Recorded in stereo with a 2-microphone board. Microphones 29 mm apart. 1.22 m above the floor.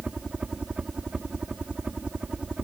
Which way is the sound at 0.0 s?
40° right (ahead or behind).